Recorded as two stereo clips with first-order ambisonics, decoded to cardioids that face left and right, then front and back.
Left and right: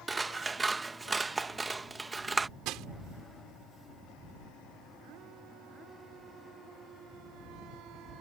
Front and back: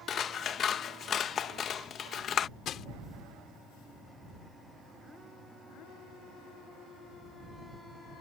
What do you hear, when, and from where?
0.1 s scissors: 25° right
2.6 s crushing: 55° right